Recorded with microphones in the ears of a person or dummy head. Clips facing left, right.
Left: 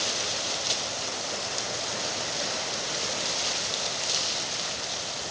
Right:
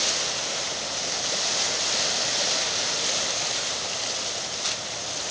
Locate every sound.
Only background noise.